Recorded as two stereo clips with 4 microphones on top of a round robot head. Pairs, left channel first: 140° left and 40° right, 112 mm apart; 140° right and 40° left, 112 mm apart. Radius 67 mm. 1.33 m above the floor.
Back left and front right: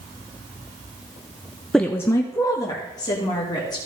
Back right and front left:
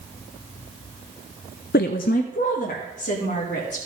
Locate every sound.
1.7 s a woman speaking: 135° right, 0.6 m; by 3.8 s 165° right, 3.5 m